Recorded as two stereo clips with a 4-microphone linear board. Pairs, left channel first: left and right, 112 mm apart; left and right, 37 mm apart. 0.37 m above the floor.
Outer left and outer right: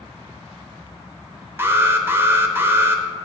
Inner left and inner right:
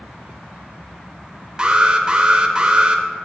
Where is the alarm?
20° right (ahead or behind), 0.7 m.